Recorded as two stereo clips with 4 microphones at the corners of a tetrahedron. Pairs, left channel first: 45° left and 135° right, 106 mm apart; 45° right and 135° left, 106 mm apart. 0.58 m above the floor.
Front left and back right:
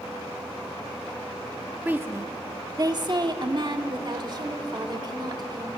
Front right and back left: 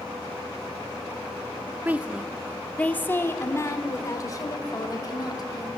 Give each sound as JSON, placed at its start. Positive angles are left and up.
{"t": 1.9, "sound": "a woman speaking", "azimuth_deg": 175, "distance_m": 1.0}